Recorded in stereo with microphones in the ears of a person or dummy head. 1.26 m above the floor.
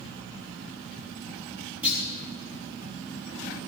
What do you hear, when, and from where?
1.8 s a clunk: 10° right (ahead or behind), 6 m